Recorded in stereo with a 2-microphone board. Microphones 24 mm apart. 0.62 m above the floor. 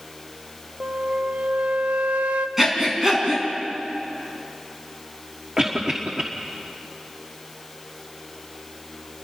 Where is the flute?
60° right (ahead or behind), 0.6 m.